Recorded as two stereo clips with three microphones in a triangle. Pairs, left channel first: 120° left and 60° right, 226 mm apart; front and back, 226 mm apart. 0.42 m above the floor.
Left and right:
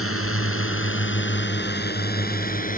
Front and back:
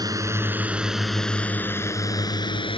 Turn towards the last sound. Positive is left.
turn(degrees=65)